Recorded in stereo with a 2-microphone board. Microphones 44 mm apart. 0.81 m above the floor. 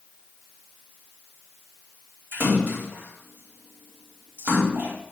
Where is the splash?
55° right (ahead or behind), 3.5 m.